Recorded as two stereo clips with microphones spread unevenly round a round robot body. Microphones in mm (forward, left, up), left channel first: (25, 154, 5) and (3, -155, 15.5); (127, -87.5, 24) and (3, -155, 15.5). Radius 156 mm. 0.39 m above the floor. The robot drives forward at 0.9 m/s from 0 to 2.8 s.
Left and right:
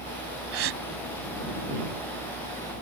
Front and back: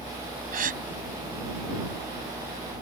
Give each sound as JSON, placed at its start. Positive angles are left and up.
{"t": 0.5, "sound": "a gasp", "azimuth_deg": -145}